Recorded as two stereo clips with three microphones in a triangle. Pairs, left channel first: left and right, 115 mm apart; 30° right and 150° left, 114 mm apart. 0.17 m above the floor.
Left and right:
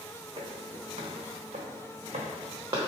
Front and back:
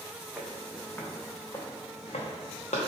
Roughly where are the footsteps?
Behind right.